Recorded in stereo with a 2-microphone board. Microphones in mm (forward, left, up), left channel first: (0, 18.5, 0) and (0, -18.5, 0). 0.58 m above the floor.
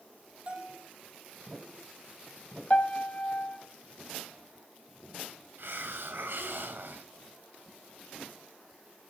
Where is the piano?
40° left (ahead or behind), 1.4 m.